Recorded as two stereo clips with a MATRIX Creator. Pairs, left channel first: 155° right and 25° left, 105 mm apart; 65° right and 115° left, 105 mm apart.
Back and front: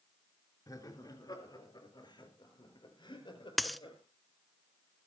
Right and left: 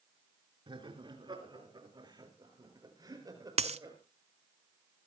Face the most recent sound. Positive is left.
turn(degrees=110)